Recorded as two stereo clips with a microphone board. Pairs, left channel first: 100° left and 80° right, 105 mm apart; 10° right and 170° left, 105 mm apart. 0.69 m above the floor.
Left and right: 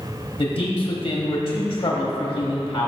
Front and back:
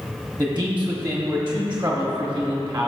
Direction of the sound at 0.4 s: 100° left.